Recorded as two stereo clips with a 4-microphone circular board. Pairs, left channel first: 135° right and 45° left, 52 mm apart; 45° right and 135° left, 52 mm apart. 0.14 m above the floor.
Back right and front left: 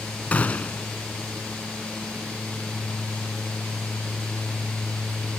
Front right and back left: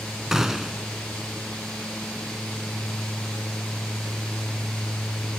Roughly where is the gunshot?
Behind right.